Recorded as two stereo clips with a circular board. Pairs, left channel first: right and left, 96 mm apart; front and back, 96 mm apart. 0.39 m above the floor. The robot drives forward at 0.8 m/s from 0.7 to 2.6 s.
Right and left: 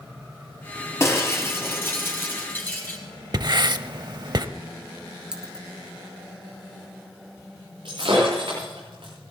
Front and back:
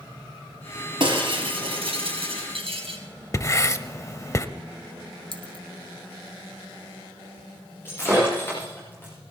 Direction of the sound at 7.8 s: 65° left.